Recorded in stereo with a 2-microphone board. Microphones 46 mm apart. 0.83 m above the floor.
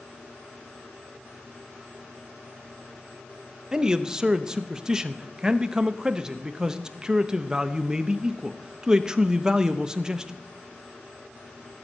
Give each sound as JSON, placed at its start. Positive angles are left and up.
{"t": 3.7, "sound": "a man speaking", "side_deg": -15, "distance_m": 0.7}